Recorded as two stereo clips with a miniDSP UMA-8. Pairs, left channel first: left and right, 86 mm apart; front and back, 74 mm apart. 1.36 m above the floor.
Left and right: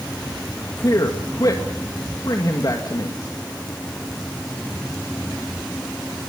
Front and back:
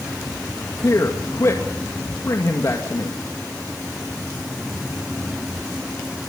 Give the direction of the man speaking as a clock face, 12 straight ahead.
10 o'clock.